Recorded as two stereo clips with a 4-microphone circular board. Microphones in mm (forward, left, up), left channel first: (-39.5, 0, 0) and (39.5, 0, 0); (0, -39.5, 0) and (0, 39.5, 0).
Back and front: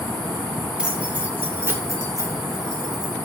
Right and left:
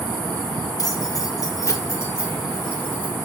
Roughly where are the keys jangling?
Right.